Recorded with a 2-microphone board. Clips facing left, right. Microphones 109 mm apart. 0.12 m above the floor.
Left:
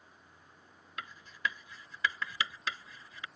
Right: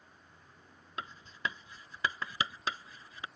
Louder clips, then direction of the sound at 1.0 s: Left 1 dB; 30° right (ahead or behind).